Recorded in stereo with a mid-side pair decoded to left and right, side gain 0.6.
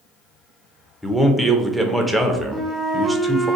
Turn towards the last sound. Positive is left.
turn(degrees=15)